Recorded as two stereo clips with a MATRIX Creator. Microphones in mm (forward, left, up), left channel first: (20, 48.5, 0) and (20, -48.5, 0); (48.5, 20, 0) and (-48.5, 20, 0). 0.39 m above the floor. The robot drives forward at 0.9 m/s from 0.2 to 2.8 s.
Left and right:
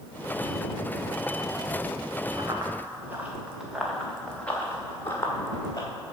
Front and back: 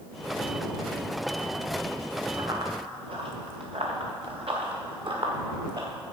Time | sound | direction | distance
2.4 | running footsteps | 135° right | 2 m